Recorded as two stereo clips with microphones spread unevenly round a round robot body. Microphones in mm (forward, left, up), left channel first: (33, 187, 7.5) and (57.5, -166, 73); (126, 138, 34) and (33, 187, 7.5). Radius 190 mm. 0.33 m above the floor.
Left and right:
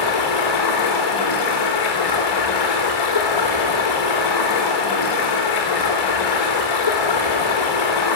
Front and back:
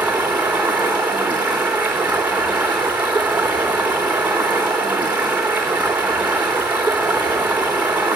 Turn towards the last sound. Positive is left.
turn(degrees=75)